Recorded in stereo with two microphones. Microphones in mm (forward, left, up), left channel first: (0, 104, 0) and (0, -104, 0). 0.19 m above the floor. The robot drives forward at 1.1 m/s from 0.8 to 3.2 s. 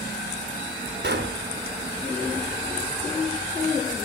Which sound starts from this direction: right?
A pop, at 1.0 s.